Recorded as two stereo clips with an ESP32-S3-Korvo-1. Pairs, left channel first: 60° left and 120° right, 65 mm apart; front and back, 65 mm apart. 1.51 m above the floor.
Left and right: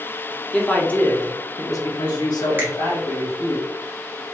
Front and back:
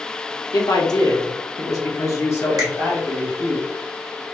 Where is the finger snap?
Straight behind, 1.0 m.